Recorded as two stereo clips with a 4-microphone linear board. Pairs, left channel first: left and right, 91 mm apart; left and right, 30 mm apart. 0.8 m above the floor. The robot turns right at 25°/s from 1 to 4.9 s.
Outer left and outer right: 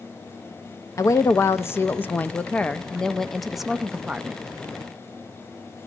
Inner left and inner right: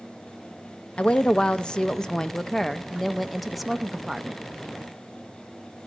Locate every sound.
1.0 s a woman speaking: 120° left, 0.5 m; by 4.4 s 155° right, 0.5 m